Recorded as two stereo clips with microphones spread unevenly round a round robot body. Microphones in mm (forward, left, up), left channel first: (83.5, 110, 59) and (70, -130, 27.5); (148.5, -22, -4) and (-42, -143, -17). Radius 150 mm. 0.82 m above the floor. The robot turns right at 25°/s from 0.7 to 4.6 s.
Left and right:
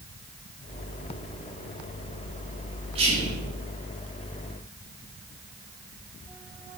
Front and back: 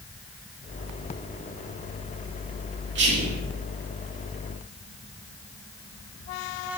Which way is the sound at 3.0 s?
150° right.